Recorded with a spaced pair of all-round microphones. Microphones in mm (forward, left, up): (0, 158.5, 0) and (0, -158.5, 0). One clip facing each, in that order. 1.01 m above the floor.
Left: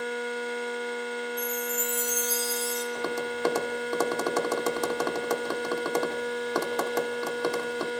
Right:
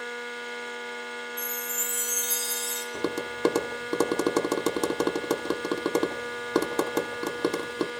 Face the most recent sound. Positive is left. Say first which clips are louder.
# even
turn(degrees=-45)  # may be behind; listen again after turning